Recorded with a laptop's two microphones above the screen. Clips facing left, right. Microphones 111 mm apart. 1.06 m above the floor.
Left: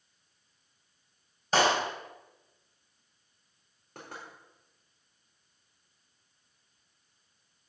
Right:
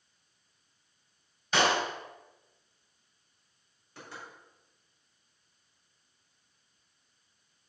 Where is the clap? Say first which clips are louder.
Left 2 dB; 40° left (ahead or behind), 4.5 m.